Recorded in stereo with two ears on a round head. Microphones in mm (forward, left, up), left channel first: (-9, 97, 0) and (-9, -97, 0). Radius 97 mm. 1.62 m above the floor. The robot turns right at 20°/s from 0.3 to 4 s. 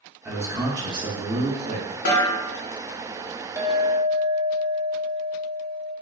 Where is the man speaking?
170° right, 0.7 m; by 1.9 s 140° right, 0.7 m.